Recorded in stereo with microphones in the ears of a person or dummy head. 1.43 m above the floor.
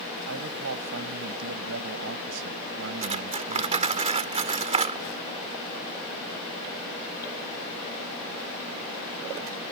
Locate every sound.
0.3 s a man speaking: 75° right (ahead or behind)
3.0 s cutlery clinking: 30° right (ahead or behind)